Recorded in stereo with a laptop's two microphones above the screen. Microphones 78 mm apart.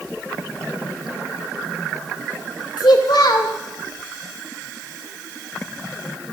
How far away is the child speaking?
About 2 m.